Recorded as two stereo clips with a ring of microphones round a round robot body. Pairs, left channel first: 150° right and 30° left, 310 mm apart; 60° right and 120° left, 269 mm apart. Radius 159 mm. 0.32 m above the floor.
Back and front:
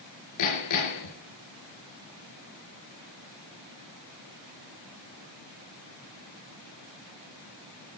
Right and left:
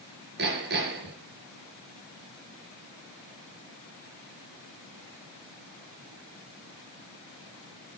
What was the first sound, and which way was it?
Hammering, straight behind.